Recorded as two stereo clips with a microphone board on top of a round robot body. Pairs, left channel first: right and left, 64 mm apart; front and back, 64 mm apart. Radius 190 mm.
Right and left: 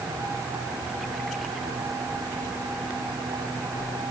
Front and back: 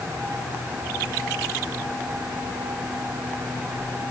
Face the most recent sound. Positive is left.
No sound to turn to.